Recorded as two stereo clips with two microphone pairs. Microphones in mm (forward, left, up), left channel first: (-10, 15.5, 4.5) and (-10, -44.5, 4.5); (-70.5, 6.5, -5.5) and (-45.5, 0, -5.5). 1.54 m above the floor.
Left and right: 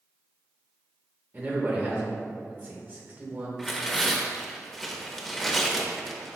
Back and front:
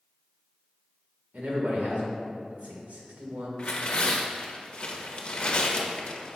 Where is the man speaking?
35° right, 1.8 m.